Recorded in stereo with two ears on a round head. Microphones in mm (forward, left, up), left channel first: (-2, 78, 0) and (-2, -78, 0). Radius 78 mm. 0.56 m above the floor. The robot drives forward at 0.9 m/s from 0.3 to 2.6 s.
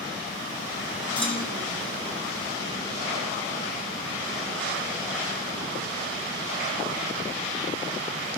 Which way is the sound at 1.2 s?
10° left (ahead or behind).